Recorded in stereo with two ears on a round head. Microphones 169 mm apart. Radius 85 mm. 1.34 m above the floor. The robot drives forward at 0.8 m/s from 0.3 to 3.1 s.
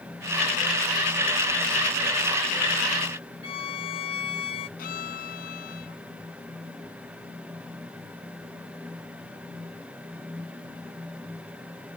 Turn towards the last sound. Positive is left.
turn(degrees=55)  # may be behind; listen again after turning